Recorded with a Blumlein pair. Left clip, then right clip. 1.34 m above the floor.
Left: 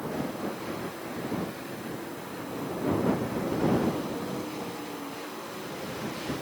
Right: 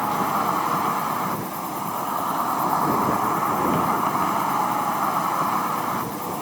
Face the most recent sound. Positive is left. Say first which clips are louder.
# right 12 dB
turn(degrees=-40)